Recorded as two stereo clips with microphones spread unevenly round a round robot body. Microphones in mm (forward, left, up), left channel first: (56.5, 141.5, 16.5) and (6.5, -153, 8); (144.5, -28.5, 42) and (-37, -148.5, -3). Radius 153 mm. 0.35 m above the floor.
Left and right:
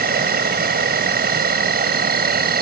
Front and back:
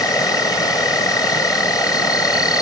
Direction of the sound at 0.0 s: 50° right.